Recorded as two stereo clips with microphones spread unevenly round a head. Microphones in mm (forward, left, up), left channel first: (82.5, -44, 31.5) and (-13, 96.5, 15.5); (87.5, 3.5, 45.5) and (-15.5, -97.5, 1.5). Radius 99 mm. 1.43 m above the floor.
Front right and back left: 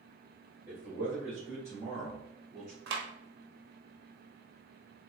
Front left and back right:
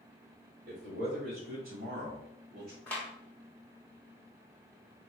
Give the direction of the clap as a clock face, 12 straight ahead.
8 o'clock.